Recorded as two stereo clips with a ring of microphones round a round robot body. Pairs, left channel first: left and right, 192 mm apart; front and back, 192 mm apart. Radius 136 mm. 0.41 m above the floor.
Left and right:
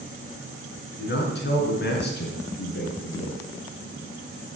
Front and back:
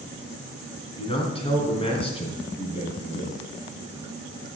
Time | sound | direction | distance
1.0 | a man speaking | 60° left | 4 m